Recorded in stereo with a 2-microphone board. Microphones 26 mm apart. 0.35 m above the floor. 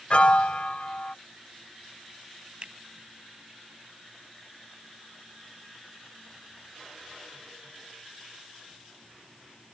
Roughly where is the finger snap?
Right.